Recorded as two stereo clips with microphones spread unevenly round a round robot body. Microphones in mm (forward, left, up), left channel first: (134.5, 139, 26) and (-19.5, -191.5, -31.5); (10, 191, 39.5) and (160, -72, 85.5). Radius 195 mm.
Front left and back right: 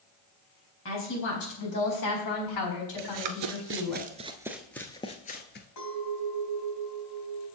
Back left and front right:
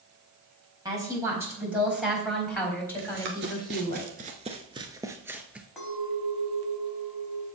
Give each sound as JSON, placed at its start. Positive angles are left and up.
{"t": 0.8, "sound": "a woman speaking", "azimuth_deg": 20, "distance_m": 4.5}
{"t": 3.0, "sound": "running footsteps", "azimuth_deg": -95, "distance_m": 1.0}
{"t": 5.8, "sound": "a clink", "azimuth_deg": 30, "distance_m": 4.0}